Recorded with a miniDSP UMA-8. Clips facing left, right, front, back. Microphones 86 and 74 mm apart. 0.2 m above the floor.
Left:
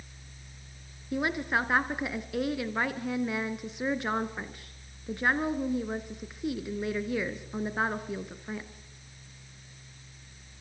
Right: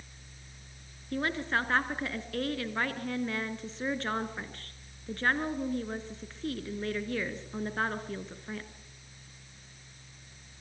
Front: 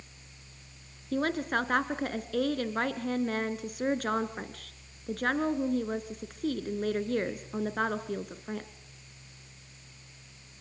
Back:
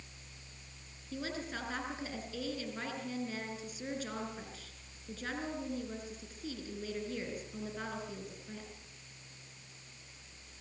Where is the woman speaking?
15° left, 2.5 m.